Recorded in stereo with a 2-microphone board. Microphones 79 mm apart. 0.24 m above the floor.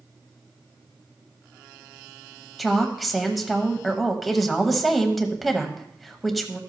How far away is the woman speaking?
About 0.9 m.